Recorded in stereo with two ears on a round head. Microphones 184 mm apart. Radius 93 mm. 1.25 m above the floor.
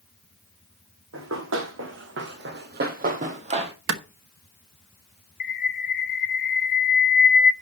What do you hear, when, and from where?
1.1 s running footsteps: 65° right (ahead or behind), 3 m; by 3.7 s 25° right (ahead or behind), 1.9 m
3.9 s a clap: 65° right (ahead or behind), 1.2 m
5.4 s a bird: 45° left (ahead or behind), 0.7 m